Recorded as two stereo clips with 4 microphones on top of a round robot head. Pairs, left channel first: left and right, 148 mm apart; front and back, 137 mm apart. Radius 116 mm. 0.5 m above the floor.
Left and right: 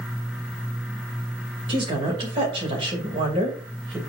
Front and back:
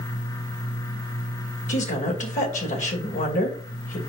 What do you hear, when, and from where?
1.7 s a woman speaking: 30° right, 2.5 m